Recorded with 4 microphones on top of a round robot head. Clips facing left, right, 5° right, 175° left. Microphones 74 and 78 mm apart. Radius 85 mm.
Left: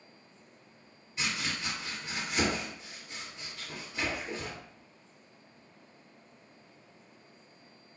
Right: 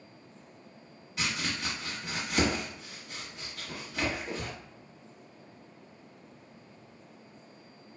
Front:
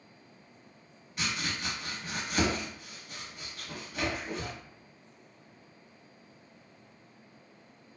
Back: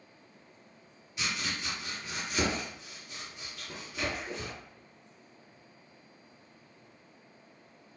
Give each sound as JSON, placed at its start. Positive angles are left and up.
{"t": 1.2, "sound": "chopping", "azimuth_deg": -55, "distance_m": 0.8}